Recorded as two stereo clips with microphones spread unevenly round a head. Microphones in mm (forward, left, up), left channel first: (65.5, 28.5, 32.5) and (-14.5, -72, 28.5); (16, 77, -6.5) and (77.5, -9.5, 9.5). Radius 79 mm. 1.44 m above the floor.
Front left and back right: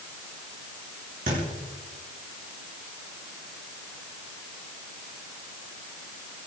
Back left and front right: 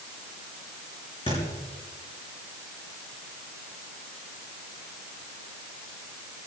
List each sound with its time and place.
1.3 s a thud: 170° right, 7 m